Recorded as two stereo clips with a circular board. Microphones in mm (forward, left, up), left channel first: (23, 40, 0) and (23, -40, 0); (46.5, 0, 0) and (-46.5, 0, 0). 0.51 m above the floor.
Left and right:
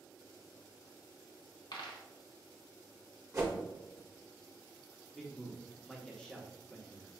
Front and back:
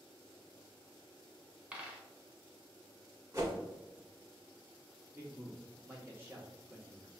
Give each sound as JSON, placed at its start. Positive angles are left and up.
{"t": 1.7, "sound": "a dropped coin", "azimuth_deg": 105, "distance_m": 0.9}
{"t": 3.3, "sound": "a whoosh", "azimuth_deg": -135, "distance_m": 1.4}
{"t": 5.1, "sound": "a man speaking", "azimuth_deg": 165, "distance_m": 0.8}